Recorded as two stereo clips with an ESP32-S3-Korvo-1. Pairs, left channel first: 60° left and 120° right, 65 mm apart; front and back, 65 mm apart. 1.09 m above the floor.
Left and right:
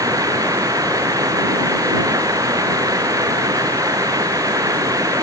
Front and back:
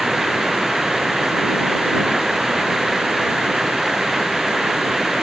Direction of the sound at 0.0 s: 90° right.